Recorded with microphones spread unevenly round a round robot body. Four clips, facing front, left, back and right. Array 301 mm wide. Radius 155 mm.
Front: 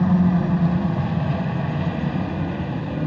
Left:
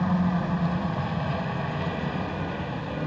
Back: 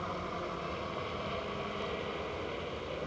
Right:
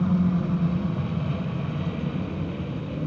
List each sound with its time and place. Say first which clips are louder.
0.0 s a helicopter: right 2 dB, front 18 dB; 10° right